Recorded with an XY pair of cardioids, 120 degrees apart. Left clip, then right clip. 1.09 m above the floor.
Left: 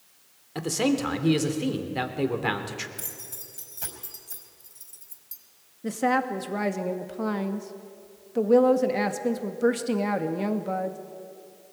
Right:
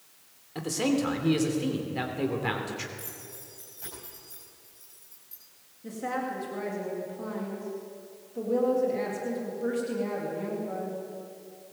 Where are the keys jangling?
65° left, 5 m.